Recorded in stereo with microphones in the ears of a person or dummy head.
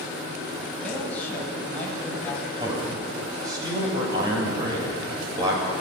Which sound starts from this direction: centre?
A man speaking, at 0.8 s.